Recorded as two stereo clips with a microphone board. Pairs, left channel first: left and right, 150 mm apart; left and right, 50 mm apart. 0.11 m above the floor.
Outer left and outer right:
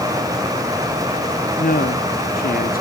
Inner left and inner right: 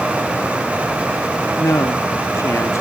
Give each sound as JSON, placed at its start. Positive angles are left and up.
{"t": 1.6, "sound": "a man speaking", "side_deg": 65}